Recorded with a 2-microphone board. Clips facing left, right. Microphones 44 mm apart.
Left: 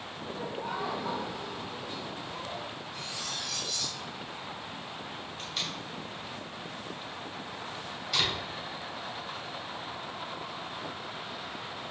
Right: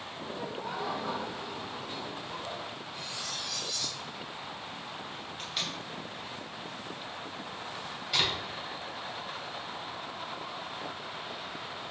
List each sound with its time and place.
0.2 s laughter: 20° left (ahead or behind), 2.0 m; by 2.6 s 30° right (ahead or behind), 1.2 m
2.9 s cutlery clinking: 70° left (ahead or behind), 2.5 m
5.4 s tape being pulled: 5° right (ahead or behind), 2 m